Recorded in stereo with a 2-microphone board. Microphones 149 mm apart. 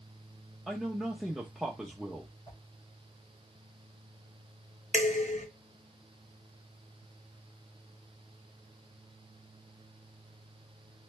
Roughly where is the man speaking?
Centre.